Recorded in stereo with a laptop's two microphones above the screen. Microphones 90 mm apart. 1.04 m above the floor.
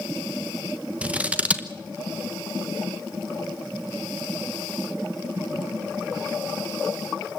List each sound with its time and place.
1.0 s scissors: 15° right (ahead or behind), 0.9 m